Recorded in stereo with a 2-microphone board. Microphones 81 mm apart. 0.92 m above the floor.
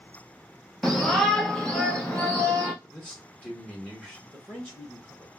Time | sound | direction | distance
0.8 | a shout | centre (ahead or behind) | 0.8 m
2.8 | a man speaking | 15° left (ahead or behind) | 1.0 m
4.3 | a man speaking | 5° left (ahead or behind) | 1.1 m